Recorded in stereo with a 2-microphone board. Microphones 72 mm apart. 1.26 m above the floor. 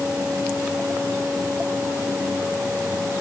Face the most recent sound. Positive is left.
No sound to turn to.